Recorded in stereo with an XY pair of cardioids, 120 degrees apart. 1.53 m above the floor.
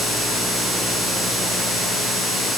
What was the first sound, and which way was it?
Only background noise.